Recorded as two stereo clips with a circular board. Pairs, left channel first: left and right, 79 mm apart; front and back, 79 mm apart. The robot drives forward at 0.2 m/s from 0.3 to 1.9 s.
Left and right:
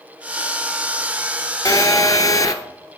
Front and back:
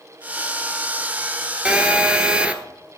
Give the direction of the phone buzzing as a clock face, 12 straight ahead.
9 o'clock.